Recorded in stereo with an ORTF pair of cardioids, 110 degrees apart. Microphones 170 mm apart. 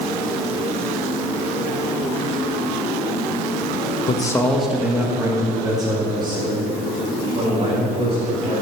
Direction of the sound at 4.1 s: 35° left.